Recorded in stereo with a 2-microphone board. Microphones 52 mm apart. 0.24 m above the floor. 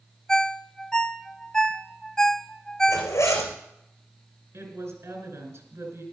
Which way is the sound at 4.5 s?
65° right (ahead or behind).